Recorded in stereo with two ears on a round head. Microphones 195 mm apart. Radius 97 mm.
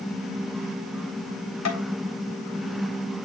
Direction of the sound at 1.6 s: 80° left.